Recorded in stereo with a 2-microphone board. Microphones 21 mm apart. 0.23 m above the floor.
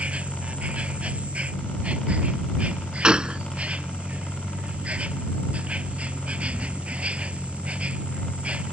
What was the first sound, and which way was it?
An insect, 75° right (ahead or behind).